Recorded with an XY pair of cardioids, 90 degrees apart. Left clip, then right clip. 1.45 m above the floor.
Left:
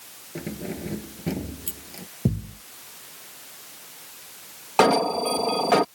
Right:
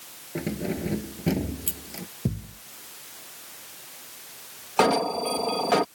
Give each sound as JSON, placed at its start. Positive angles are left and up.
{"t": 0.3, "sound": "keys jangling", "azimuth_deg": -25}
{"t": 2.2, "sound": "a thud", "azimuth_deg": 40}
{"t": 4.8, "sound": "an alarm", "azimuth_deg": 25}